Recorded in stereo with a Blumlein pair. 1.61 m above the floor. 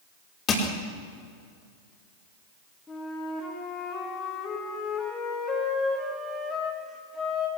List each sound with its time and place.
0.5 s crushing: 30° left, 4.5 m
2.9 s a flute: 10° left, 4 m